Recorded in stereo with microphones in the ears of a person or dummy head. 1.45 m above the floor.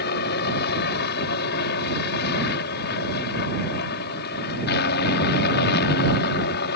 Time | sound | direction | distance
0.0 | a helicopter | 60° left (ahead or behind) | ?